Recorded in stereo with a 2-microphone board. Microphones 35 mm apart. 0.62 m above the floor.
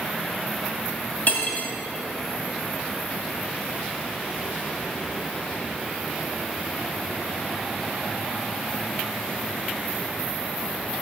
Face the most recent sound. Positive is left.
turn(degrees=55)  # may be behind; listen again after turning